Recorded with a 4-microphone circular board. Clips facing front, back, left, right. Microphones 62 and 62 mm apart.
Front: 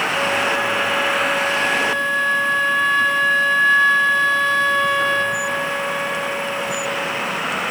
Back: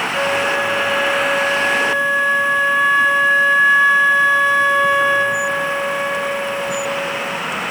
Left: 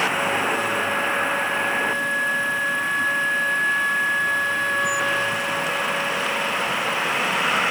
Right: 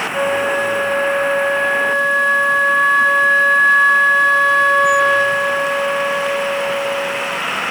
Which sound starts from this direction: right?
A flute, at 0.1 s.